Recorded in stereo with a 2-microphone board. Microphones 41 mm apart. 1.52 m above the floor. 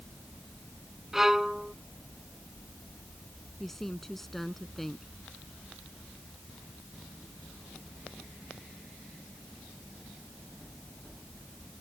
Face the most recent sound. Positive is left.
turn(degrees=5)  # may be behind; listen again after turning